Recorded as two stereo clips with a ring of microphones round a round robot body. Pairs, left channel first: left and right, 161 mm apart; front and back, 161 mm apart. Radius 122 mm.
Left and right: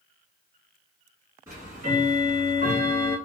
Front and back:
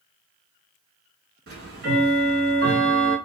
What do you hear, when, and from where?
1.5 s ticking: 165° right, 1.6 m